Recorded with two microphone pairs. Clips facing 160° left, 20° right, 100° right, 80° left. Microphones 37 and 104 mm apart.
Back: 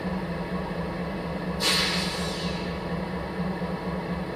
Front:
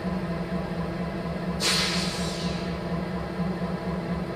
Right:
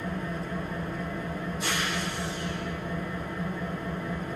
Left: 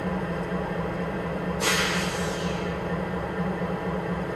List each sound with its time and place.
0.0 s an engine running: 80° left, 1.0 m